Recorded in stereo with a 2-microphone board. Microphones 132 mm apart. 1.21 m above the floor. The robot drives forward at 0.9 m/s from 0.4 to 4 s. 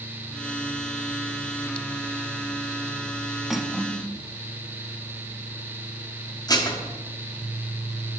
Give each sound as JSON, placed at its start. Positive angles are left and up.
{"t": 3.5, "sound": "cutlery clinking", "side_deg": -5, "distance_m": 1.1}
{"t": 6.5, "sound": "dishes clattering", "side_deg": 30, "distance_m": 1.4}